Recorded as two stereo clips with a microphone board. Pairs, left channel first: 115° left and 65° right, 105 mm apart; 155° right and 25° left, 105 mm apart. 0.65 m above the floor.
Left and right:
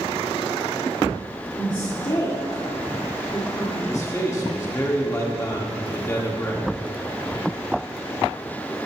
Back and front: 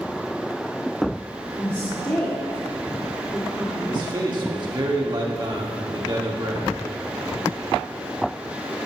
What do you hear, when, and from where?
1.6 s a woman speaking: 140° left, 1.6 m
3.9 s a man speaking: 60° left, 1.5 m